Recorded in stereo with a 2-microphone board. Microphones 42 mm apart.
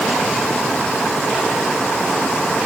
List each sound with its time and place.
Only background noise.